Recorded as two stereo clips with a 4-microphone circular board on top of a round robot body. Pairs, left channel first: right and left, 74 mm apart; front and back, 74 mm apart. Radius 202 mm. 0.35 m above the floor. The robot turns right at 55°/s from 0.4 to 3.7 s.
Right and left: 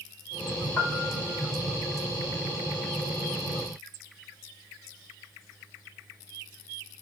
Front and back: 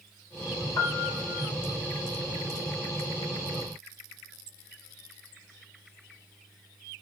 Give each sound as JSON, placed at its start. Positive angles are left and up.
{"t": 0.8, "sound": "a piano", "azimuth_deg": -25, "distance_m": 1.5}